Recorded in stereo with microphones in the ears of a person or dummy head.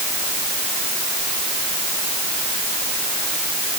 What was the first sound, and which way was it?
Only background noise.